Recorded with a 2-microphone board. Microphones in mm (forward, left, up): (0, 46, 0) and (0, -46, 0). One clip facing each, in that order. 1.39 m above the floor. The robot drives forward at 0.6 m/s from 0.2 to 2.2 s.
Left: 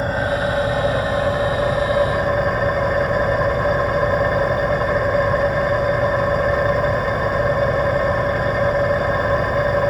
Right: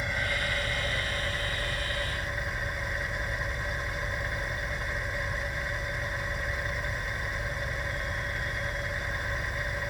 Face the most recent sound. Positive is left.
turn(degrees=65)  # may be behind; listen again after turning